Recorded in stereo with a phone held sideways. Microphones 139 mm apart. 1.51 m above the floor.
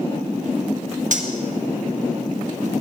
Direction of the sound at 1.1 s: 65° right (ahead or behind).